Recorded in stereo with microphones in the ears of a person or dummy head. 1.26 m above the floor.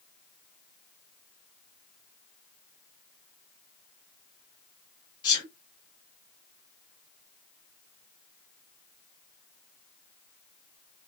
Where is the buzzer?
No buzzer in this recording.